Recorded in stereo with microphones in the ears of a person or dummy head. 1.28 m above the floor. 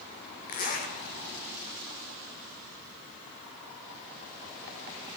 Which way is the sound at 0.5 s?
45° left (ahead or behind).